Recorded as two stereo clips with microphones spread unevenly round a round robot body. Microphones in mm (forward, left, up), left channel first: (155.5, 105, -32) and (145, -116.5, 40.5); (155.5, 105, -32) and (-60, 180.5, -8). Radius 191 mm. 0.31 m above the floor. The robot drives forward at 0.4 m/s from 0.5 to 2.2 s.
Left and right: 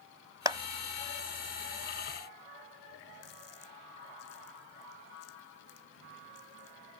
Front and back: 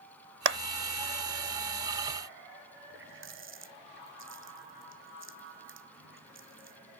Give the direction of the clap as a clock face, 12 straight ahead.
6 o'clock.